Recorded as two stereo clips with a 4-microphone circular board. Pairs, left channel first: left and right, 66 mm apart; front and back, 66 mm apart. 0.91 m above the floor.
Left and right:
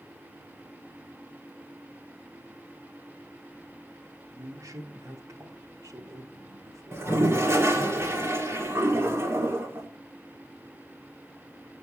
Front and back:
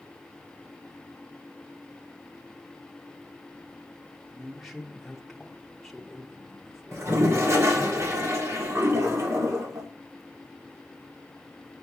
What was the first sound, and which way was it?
A man speaking, 90° right.